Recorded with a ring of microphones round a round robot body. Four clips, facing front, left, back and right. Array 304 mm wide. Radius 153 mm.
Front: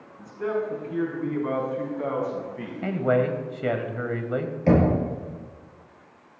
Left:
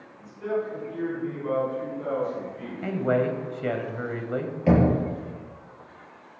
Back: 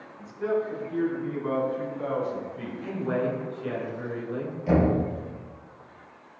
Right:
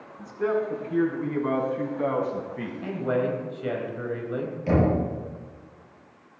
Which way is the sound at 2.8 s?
20° left.